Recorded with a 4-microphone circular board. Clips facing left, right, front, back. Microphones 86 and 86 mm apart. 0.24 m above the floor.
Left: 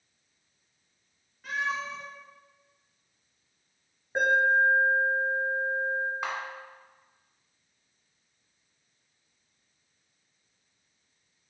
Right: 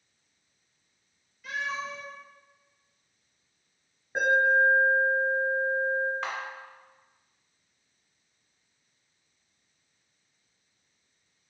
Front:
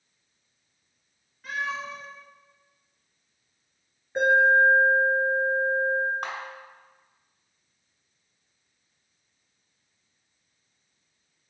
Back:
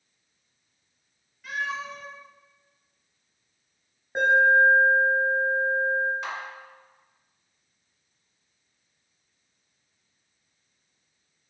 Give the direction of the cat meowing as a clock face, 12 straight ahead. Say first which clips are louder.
Left 2 dB, even; 10 o'clock.